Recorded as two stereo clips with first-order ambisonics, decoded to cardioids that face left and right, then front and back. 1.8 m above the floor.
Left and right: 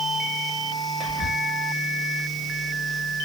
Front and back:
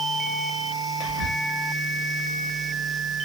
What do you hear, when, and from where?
1.0 s whispering: 10° right, 1.1 m